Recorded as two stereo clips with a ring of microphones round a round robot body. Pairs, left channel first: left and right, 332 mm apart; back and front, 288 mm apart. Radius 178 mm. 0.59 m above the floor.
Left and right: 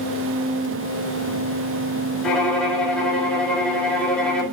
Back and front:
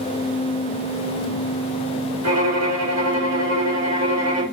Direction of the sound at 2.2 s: 5° left.